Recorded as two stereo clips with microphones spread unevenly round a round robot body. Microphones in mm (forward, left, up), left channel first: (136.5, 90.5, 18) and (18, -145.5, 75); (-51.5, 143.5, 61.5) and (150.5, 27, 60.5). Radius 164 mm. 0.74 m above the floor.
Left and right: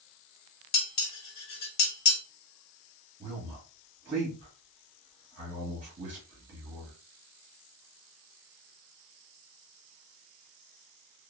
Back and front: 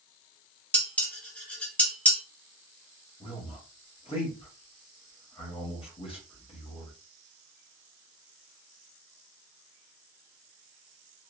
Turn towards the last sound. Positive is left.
turn(degrees=180)